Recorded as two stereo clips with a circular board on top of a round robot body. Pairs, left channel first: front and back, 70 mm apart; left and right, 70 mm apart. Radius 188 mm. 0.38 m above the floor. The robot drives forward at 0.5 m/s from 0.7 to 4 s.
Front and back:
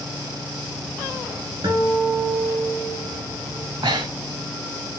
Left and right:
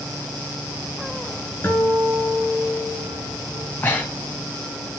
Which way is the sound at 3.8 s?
150° left.